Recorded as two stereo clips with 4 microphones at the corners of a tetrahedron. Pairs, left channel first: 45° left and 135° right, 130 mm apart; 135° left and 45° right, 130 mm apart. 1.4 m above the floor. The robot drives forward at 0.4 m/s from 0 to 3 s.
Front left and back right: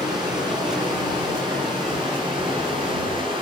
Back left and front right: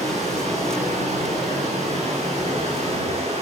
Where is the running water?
75° right, 9 m; by 3.4 s 85° right, 8.5 m.